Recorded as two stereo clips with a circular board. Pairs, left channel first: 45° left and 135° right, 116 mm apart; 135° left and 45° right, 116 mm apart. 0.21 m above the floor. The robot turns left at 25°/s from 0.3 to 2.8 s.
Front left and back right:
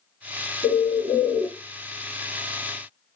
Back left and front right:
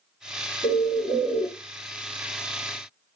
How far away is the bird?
About 1.5 m.